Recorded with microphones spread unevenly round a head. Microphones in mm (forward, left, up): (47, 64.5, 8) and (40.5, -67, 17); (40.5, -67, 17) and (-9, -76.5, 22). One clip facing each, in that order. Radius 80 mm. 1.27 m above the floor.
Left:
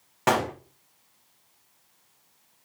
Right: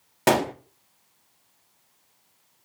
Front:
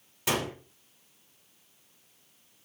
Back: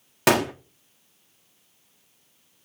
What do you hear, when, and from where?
0.3 s a gunshot: 155° right, 1.0 m